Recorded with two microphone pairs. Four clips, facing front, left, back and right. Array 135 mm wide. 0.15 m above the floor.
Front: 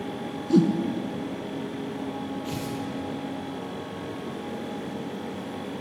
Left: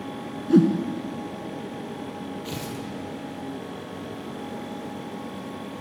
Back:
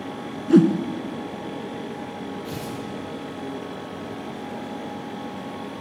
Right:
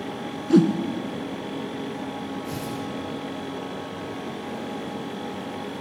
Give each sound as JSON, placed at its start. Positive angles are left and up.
{"t": 0.5, "sound": "a whoosh", "azimuth_deg": -150, "distance_m": 1.3}
{"t": 2.5, "sound": "tearing paper", "azimuth_deg": 55, "distance_m": 5.5}